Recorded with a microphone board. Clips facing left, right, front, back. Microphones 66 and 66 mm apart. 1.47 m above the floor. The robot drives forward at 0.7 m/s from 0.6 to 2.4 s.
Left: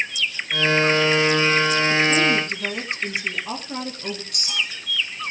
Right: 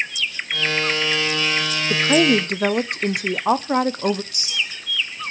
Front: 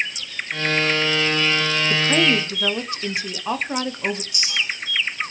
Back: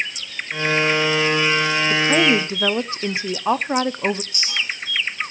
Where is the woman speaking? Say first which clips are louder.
Right 7 dB, back 2 dB; 90° right, 0.8 m; by 4.2 s 115° right, 0.9 m.